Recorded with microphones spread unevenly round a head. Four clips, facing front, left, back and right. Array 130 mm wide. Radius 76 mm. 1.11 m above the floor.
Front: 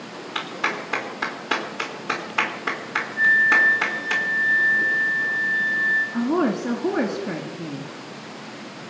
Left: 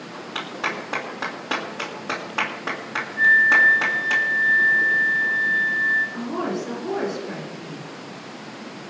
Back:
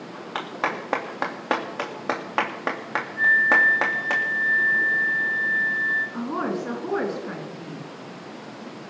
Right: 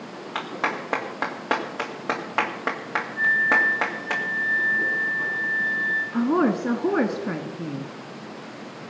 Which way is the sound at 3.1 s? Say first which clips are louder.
Left 5 dB, front 1 dB; 165° right.